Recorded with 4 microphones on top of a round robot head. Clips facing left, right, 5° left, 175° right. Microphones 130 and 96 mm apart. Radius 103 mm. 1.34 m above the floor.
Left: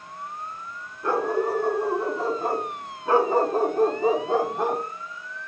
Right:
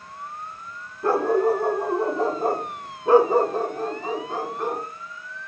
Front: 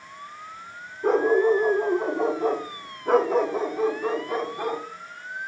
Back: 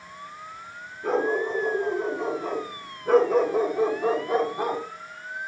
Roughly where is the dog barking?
Ahead right.